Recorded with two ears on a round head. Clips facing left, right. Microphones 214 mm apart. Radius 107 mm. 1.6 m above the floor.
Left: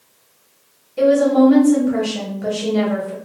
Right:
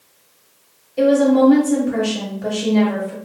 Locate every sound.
1.0 s a woman speaking: 5° left (ahead or behind), 1.6 m